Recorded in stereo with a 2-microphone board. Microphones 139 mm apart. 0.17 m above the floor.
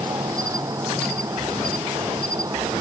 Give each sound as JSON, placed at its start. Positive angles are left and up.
{"t": 0.0, "sound": "an insect", "side_deg": -25}